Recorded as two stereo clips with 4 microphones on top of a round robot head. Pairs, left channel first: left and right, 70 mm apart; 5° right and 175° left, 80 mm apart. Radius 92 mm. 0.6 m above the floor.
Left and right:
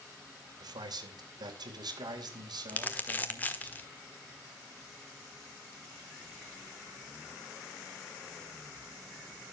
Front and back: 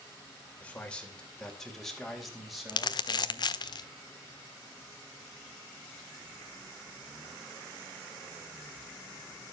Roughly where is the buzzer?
I don't hear a buzzer.